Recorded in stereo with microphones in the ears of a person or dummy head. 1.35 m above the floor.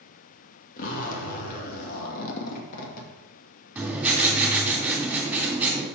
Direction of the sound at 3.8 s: 5° right (ahead or behind).